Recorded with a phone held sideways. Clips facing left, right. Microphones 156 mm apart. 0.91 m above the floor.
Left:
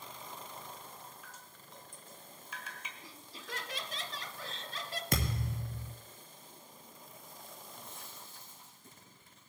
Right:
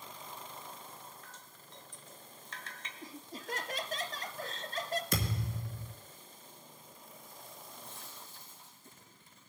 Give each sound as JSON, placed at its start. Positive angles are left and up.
{"t": 1.2, "sound": "dripping", "side_deg": 10, "distance_m": 1.5}
{"t": 3.0, "sound": "laughter", "side_deg": -45, "distance_m": 0.9}
{"t": 5.1, "sound": "a thud", "side_deg": 65, "distance_m": 1.8}
{"t": 7.7, "sound": "chewing", "side_deg": 70, "distance_m": 8.0}